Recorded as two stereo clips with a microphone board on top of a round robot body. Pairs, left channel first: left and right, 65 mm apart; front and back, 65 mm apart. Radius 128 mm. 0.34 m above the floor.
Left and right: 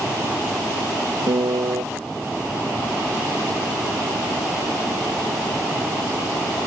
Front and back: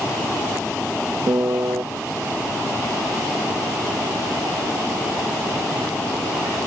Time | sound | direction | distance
1.3 | a piano | 135° right | ?